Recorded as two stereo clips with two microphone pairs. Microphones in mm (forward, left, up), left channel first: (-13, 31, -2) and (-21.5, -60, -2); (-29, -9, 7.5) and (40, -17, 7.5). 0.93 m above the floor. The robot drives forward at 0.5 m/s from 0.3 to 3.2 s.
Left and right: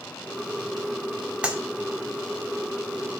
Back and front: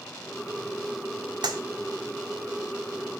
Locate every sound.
1.4 s a clap: 20° right, 1.9 m